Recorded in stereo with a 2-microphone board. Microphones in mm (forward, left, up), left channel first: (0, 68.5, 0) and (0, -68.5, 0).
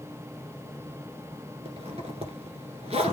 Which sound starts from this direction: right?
A zipper, at 1.6 s.